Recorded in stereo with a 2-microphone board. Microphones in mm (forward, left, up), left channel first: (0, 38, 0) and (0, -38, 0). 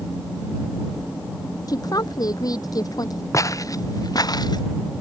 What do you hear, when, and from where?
1.7 s a woman speaking: 55° left (ahead or behind); by 3.2 s 50° left (ahead or behind)
3.3 s footsteps: 40° left (ahead or behind); by 4.6 s 60° left (ahead or behind)